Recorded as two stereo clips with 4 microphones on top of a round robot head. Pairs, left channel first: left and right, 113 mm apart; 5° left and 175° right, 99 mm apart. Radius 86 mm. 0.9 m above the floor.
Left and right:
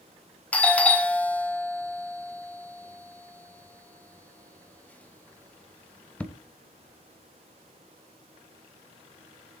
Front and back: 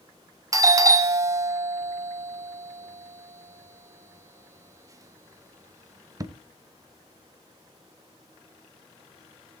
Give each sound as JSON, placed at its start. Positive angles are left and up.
{"t": 0.5, "sound": "a doorbell", "azimuth_deg": 160, "distance_m": 0.8}